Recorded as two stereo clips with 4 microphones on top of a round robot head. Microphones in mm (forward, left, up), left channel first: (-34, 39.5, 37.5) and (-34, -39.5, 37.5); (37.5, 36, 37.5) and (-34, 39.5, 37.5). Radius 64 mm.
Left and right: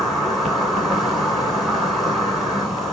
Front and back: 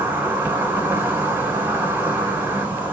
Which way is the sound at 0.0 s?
Straight behind.